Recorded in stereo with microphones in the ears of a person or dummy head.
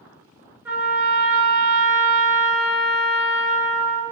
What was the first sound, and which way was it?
A trumpet, 5° right (ahead or behind).